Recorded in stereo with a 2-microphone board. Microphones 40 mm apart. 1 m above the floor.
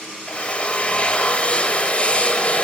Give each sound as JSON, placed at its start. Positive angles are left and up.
{"t": 0.3, "sound": "a drill", "side_deg": 30, "distance_m": 1.6}